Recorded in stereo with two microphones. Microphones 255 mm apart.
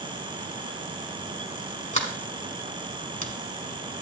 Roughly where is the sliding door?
Left.